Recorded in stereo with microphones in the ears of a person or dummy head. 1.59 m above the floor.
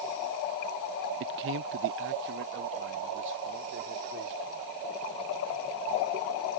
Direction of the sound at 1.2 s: 55° right (ahead or behind).